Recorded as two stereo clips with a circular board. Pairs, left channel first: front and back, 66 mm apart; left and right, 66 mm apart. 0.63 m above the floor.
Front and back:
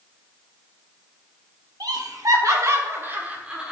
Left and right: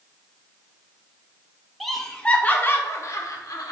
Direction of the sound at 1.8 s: Straight behind.